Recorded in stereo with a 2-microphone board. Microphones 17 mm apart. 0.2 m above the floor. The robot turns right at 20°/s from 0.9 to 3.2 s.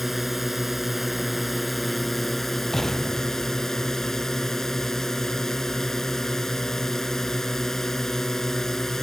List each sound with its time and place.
0.0 s a drone: 15° right; by 9.1 s 35° left
2.7 s an explosion: 25° left (ahead or behind); by 3.9 s 35° left (ahead or behind)